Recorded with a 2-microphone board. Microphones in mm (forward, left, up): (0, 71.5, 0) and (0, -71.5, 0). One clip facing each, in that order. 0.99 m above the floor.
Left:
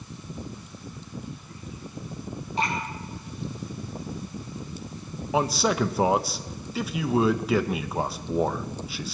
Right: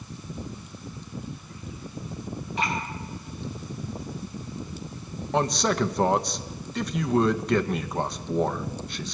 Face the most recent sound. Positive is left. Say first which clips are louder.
# even
turn(degrees=5)  # may be behind; listen again after turning